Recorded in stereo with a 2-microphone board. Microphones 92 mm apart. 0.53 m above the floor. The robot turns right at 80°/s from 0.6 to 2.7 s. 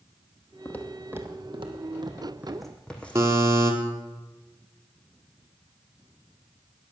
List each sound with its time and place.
0.7 s footsteps: 30° left (ahead or behind), 1.3 m; by 3.4 s 15° left (ahead or behind), 2 m
3.1 s a buzzer: 30° right (ahead or behind), 1.9 m